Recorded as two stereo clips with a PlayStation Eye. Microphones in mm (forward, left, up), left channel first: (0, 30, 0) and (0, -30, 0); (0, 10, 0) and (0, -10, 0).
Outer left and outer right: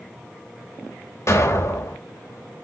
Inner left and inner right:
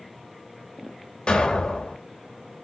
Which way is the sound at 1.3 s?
55° left (ahead or behind).